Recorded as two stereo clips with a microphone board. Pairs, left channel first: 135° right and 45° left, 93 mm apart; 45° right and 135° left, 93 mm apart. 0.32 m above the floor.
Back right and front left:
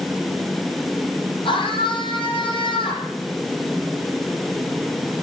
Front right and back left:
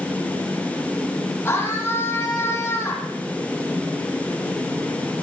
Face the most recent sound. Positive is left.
turn(degrees=-115)